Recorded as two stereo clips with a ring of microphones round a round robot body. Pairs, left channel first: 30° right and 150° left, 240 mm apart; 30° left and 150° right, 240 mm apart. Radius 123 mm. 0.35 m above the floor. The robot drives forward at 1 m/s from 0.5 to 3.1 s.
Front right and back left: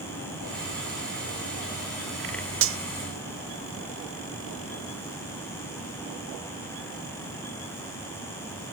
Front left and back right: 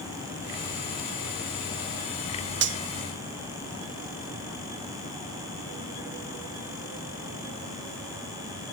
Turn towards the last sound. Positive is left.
turn(degrees=175)